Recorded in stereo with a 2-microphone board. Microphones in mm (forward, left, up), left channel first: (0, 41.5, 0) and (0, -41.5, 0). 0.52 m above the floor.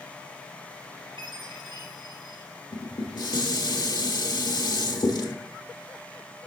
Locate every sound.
1.2 s a chime: 75° right (ahead or behind), 3 m
2.7 s dishes clattering: 60° left (ahead or behind), 1.1 m